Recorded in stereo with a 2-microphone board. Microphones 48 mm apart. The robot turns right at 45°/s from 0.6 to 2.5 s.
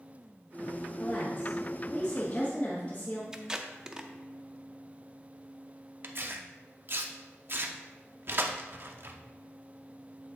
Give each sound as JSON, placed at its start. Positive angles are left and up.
{"t": 1.0, "sound": "a woman speaking", "azimuth_deg": 45, "distance_m": 1.1}
{"t": 3.3, "sound": "tape being pulled", "side_deg": -15, "distance_m": 0.5}
{"t": 6.0, "sound": "tearing paper", "side_deg": -50, "distance_m": 0.6}